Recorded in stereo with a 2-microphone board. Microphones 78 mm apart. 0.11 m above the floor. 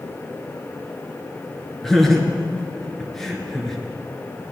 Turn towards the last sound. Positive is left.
turn(degrees=5)  # may be behind; listen again after turning